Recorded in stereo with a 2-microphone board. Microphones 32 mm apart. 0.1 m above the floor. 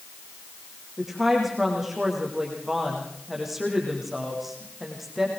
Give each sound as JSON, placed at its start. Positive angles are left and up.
{"t": 1.0, "sound": "a woman speaking", "side_deg": -10, "distance_m": 6.5}